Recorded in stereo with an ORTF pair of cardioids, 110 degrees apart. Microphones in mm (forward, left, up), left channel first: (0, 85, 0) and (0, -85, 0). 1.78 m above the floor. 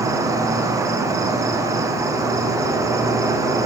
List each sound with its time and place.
0.0 s an insect: 20° right, 1.2 m